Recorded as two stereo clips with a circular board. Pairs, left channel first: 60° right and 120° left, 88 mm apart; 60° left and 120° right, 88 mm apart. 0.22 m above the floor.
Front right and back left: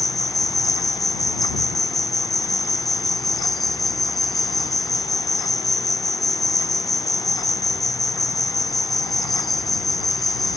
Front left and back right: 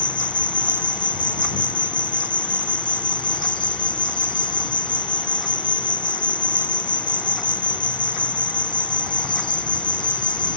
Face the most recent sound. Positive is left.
turn(degrees=30)